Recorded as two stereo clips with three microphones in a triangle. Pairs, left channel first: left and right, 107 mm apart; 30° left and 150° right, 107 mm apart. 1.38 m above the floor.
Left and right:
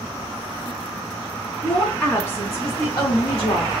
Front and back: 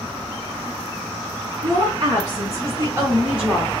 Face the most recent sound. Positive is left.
turn(degrees=120)